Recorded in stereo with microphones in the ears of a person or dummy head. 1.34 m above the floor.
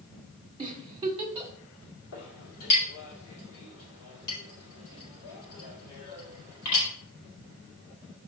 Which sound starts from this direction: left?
A clink, at 2.1 s.